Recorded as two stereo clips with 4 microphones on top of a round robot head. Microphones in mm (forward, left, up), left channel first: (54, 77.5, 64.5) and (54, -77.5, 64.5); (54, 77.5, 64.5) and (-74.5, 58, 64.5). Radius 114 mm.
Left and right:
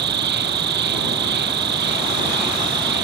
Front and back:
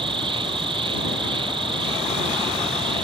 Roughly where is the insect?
Right.